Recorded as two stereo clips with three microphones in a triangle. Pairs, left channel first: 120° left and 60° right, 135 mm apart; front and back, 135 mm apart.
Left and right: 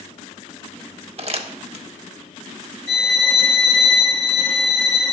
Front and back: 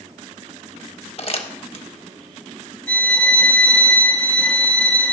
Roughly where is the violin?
Left.